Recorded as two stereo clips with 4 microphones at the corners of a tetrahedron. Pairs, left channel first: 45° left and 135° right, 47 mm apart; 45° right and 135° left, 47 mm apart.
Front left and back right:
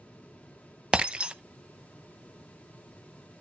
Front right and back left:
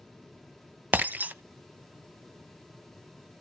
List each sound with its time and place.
0.9 s breaking glass: 165° left, 0.8 m